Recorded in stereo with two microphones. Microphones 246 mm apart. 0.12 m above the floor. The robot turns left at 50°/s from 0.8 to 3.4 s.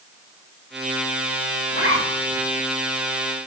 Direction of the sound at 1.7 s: 70° right (ahead or behind).